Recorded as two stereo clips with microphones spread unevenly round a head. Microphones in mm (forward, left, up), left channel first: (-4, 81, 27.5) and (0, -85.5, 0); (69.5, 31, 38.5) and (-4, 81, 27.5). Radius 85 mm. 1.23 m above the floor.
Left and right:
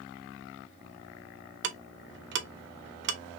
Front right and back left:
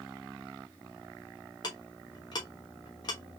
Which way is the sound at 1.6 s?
85° right.